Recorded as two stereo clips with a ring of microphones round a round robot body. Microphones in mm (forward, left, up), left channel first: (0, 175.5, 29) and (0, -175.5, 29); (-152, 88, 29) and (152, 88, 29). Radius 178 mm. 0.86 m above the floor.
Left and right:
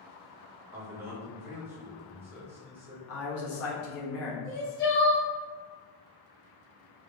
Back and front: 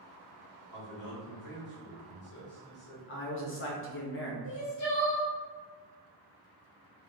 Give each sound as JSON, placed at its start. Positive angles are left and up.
{"t": 0.7, "sound": "a man speaking", "azimuth_deg": -175, "distance_m": 1.6}
{"t": 3.1, "sound": "a man speaking", "azimuth_deg": 135, "distance_m": 1.3}
{"t": 4.4, "sound": "crying", "azimuth_deg": 150, "distance_m": 1.5}